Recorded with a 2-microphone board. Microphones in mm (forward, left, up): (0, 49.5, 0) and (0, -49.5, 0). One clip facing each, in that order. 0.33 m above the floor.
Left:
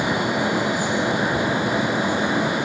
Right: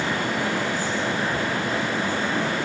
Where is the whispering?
I don't hear whispering.